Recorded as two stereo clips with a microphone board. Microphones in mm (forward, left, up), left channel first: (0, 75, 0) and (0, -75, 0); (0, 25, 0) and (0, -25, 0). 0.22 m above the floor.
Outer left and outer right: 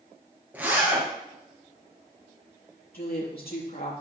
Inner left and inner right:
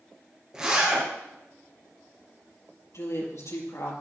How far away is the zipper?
About 5 m.